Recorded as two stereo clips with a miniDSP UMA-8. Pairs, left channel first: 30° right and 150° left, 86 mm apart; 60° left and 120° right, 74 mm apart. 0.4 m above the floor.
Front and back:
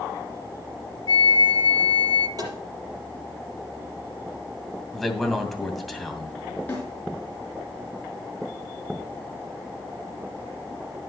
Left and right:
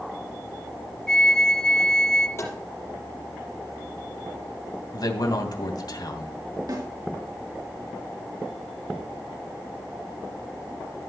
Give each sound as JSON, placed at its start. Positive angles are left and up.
{"t": 1.1, "sound": "a flute", "azimuth_deg": -20, "distance_m": 1.1}
{"t": 2.4, "sound": "tapping", "azimuth_deg": 110, "distance_m": 6.0}
{"t": 4.9, "sound": "a man speaking", "azimuth_deg": 60, "distance_m": 2.5}
{"t": 6.7, "sound": "a snare drum", "azimuth_deg": -95, "distance_m": 5.5}